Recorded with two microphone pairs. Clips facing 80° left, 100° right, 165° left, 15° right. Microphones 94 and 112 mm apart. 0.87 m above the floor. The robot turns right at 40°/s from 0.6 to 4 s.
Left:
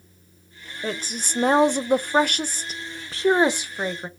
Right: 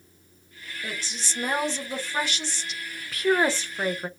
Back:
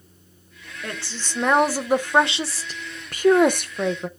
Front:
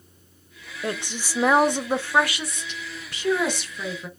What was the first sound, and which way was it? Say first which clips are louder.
A woman speaking: left 7 dB, front 4 dB; 45° left.